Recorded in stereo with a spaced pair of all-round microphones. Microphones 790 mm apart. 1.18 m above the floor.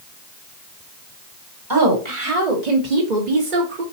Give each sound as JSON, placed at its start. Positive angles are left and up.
{"t": 1.7, "sound": "a woman speaking", "side_deg": -25, "distance_m": 1.2}